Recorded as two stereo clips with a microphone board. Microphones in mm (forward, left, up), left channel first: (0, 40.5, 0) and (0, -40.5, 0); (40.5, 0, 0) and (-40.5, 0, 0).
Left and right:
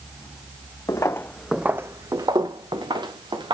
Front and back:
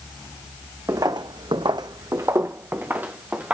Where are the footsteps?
135° left, 0.8 m; by 3.5 s 105° right, 2 m.